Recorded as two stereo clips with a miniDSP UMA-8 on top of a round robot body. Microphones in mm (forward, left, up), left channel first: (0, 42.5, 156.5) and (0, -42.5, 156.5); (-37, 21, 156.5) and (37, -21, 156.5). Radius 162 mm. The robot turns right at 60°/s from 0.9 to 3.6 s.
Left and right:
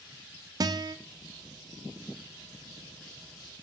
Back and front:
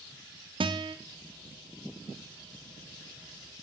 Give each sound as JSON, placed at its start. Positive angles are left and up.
{"t": 0.6, "sound": "a guitar", "azimuth_deg": -50, "distance_m": 0.7}